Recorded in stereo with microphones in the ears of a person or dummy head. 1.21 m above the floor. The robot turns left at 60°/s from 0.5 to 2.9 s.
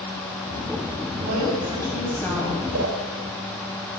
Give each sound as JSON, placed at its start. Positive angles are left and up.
{"t": 1.2, "sound": "a woman speaking", "azimuth_deg": -125, "distance_m": 6.5}
{"t": 2.7, "sound": "a whoosh", "side_deg": -75, "distance_m": 5.0}